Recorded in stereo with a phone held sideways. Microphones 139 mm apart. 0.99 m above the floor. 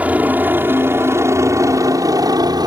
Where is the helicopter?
10° right (ahead or behind); by 2.7 s 30° right (ahead or behind).